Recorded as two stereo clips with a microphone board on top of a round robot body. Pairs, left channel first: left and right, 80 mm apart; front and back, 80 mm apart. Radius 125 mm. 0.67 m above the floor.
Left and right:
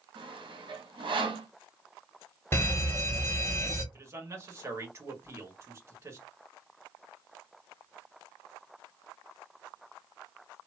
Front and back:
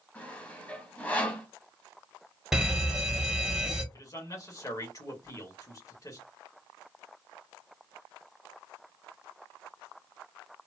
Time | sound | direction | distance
0.1 | sawing | 75° right | 1.1 m
2.5 | a fire alarm | 105° left | 2 m
3.9 | a man speaking | 40° right | 1.6 m